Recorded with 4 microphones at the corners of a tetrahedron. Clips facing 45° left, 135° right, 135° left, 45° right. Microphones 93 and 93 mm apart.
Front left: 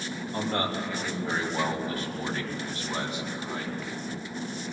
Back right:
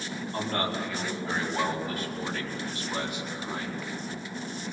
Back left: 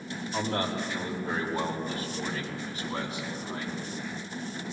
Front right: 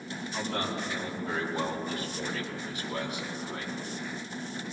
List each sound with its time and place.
0.3 s a man speaking: 105° left, 3 m; by 3.8 s 85° left, 4.5 m